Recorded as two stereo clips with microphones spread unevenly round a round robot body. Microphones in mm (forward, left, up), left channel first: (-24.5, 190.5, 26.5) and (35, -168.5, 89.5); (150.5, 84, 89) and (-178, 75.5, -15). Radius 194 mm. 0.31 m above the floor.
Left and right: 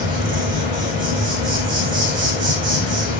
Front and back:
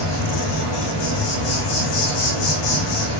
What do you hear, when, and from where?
0.0 s an insect: 10° right, 8 m